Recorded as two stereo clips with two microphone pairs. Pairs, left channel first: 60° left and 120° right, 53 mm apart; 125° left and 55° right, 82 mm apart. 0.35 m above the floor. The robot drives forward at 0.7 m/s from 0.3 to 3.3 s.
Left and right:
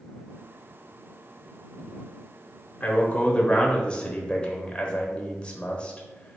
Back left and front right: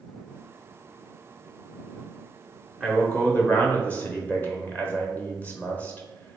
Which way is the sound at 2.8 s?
45° left.